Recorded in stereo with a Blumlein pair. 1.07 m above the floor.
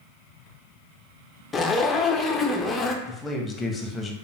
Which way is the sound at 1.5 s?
10° left.